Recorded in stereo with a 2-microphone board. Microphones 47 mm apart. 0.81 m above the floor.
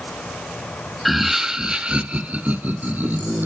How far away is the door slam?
No door slam in this recording.